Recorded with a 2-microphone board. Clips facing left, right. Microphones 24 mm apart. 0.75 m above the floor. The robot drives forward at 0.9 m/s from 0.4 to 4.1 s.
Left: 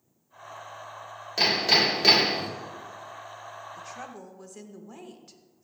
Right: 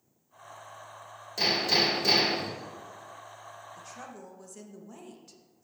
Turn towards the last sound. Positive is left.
turn(degrees=15)  # may be behind; listen again after turning